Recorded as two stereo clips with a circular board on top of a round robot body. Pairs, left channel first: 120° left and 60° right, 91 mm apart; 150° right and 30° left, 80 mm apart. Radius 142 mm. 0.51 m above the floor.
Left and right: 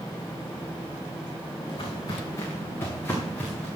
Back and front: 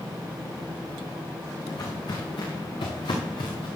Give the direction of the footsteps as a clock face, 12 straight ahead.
7 o'clock.